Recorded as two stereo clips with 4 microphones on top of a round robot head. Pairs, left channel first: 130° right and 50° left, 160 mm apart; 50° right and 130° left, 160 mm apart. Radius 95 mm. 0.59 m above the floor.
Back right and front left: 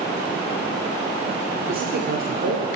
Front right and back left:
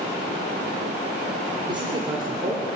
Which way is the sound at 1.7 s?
70° left.